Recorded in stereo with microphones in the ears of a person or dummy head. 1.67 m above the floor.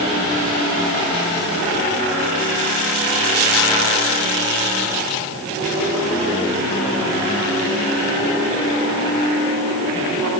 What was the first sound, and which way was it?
Only background noise.